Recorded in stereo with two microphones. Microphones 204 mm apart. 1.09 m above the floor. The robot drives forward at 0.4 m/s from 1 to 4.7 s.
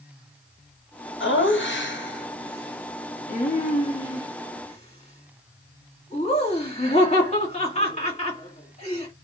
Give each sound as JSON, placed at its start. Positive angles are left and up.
{"t": 1.2, "sound": "laughter", "side_deg": 75, "distance_m": 1.1}